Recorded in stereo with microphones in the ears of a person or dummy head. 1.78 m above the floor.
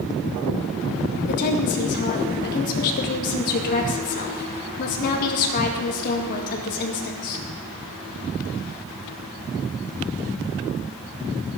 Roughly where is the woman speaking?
Left.